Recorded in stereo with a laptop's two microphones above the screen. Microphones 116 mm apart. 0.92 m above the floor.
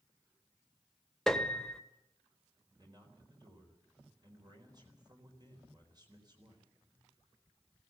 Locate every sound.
1.3 s a piano: 5° left (ahead or behind), 1.4 m
2.8 s a man speaking: 40° right (ahead or behind), 4 m